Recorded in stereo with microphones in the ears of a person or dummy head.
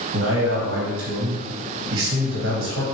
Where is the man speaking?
80° right, 1.3 m.